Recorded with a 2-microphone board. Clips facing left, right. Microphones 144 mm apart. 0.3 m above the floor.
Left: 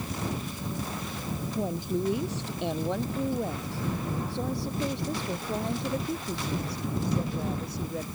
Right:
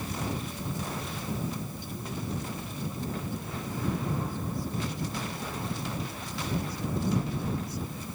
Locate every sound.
1.6 s a woman speaking: 80° left; by 8.0 s 65° left (ahead or behind)